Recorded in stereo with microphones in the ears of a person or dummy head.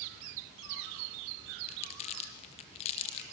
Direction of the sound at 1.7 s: 35° left (ahead or behind).